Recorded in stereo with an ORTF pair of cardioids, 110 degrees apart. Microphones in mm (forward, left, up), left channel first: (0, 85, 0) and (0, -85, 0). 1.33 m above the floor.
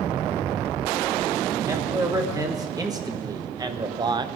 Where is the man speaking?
20° right, 2.5 m; by 4.3 s 25° right, 0.8 m.